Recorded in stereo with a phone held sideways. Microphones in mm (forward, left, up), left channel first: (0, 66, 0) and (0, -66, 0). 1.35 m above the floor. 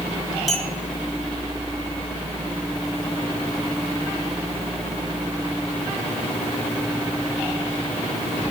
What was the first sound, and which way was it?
A clink, centre (ahead or behind).